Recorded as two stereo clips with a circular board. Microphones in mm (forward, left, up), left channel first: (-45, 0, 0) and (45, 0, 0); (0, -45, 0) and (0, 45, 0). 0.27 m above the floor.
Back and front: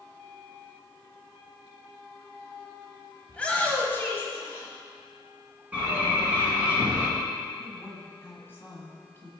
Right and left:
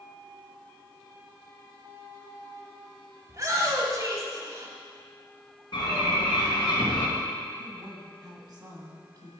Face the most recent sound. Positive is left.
turn(degrees=120)